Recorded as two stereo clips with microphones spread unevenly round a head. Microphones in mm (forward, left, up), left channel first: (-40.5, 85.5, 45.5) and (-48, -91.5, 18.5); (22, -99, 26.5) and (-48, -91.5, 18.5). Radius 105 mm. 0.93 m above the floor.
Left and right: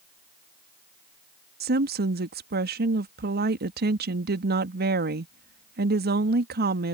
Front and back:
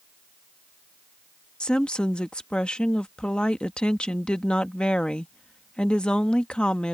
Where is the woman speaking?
85° right.